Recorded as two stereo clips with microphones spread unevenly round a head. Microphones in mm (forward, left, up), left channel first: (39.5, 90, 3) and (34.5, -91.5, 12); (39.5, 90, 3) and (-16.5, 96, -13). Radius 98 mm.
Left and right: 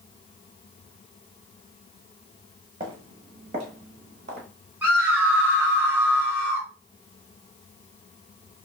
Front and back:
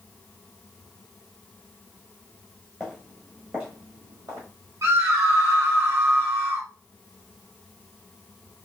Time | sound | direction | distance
2.8 | footsteps | 60° right | 1.0 m
4.8 | a scream | 175° right | 1.2 m